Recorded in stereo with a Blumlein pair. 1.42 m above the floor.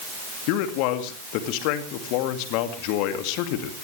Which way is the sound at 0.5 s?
45° left.